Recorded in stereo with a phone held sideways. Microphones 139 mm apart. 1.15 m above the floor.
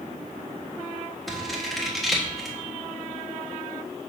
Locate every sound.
1.3 s scissors: centre (ahead or behind), 1.3 m